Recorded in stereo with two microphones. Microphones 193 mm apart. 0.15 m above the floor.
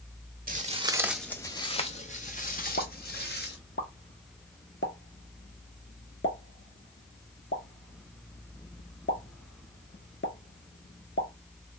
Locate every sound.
0.5 s footsteps: 45° right (ahead or behind), 0.5 m; by 3.6 s 55° left (ahead or behind), 1.6 m
2.8 s a pop: 75° left (ahead or behind), 0.8 m